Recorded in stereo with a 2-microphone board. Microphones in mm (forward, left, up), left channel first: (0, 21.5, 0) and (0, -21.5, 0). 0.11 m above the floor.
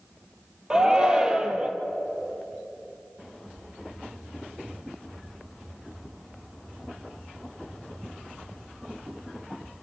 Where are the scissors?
No scissors in this recording.